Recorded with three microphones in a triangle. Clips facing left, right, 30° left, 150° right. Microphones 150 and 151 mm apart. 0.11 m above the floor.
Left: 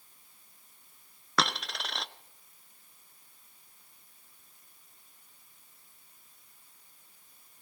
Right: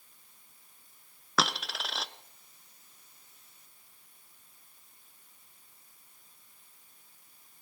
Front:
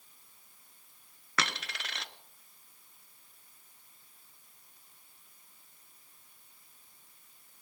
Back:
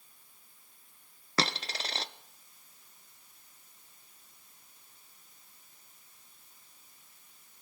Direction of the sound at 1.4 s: 175° right.